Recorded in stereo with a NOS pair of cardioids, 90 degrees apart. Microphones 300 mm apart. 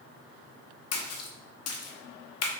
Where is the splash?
55° left, 0.9 m.